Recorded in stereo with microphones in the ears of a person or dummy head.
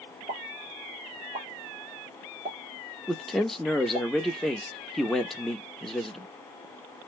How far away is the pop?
About 1.2 m.